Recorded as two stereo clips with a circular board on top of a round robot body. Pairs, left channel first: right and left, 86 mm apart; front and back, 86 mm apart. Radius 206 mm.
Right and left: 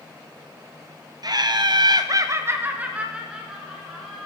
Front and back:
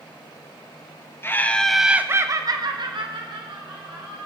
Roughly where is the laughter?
Ahead left.